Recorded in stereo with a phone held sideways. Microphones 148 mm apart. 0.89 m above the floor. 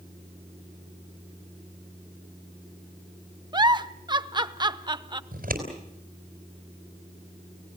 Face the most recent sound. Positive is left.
turn(degrees=-80)